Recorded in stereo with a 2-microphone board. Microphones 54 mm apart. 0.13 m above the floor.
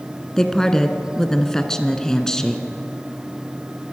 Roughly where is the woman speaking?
Centre.